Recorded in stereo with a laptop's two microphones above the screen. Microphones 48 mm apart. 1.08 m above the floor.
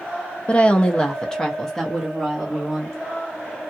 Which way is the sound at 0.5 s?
30° left (ahead or behind).